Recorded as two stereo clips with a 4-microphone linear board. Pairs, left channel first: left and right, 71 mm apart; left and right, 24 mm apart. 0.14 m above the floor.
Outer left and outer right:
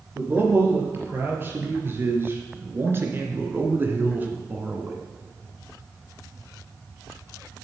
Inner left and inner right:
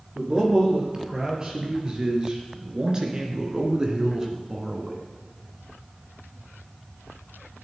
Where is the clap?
No clap in this recording.